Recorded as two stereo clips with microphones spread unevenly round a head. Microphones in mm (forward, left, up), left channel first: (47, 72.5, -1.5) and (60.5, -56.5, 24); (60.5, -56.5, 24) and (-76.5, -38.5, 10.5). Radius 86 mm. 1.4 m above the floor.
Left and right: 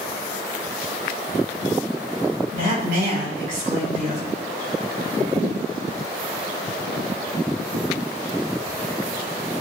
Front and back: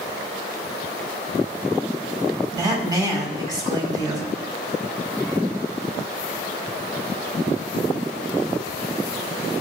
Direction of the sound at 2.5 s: 125° right.